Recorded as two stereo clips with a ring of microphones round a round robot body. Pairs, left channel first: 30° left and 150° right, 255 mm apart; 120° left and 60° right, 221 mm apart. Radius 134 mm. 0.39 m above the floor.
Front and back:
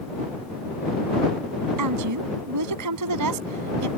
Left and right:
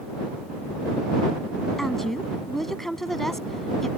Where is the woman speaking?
150° right.